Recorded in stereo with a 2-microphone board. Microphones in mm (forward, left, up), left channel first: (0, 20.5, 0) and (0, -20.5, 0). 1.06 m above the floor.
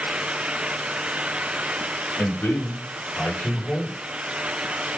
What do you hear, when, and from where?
2.2 s a man speaking: 60° left (ahead or behind), 5 m